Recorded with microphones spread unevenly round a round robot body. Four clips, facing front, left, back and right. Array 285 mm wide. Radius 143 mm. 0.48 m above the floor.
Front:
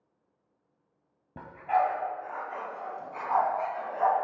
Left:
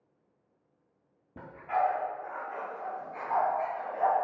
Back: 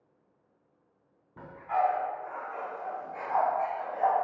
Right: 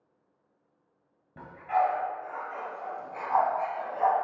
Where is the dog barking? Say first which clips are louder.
Right 3 dB, front 2 dB; 15° left, 1.1 m; by 4.2 s 30° right, 2 m.